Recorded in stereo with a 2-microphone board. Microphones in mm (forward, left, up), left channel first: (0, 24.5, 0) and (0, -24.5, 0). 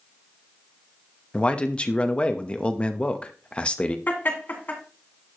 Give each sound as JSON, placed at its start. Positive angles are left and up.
{"t": 1.3, "sound": "a man speaking", "side_deg": 25, "distance_m": 0.8}
{"t": 4.1, "sound": "laughter", "side_deg": 40, "distance_m": 2.0}